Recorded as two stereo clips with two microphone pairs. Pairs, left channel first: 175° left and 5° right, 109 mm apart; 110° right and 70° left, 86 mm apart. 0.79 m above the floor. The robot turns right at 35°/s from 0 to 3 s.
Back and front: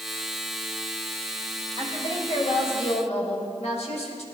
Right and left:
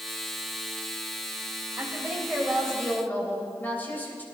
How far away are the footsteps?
No footsteps in this recording.